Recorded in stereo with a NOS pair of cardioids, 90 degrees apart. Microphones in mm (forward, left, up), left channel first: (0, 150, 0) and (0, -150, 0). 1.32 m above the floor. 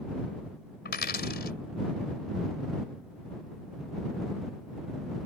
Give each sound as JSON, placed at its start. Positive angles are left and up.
{"t": 0.8, "sound": "a dropped coin", "azimuth_deg": 35}